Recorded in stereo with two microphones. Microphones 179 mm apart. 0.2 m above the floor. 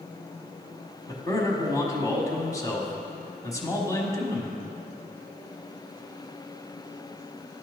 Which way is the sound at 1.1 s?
20° left (ahead or behind).